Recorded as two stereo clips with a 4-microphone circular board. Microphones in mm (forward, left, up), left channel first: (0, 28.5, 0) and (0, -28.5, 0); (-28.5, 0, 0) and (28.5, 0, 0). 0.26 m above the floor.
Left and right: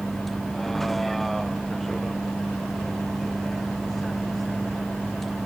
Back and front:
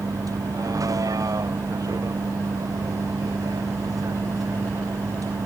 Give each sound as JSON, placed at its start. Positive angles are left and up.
{"t": 0.0, "sound": "a vehicle", "azimuth_deg": 5}